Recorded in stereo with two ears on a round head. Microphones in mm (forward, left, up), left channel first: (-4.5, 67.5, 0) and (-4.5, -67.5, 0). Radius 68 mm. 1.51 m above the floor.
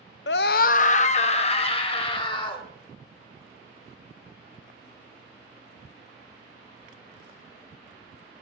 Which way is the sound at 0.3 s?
85° left.